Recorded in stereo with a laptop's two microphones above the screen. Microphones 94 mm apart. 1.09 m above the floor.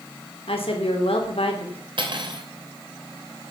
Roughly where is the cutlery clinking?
Right.